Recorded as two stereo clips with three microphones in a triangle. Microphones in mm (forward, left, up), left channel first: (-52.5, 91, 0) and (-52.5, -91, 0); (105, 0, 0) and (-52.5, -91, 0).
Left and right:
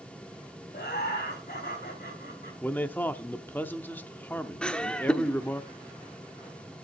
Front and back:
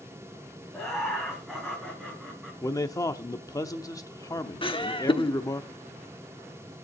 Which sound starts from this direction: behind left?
Laughter, at 0.7 s.